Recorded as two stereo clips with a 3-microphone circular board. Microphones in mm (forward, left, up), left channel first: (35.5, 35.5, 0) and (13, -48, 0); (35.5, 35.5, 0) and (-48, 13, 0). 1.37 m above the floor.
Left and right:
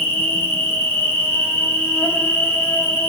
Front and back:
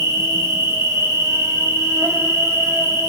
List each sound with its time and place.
0.0 s an insect: 140° left, 1.1 m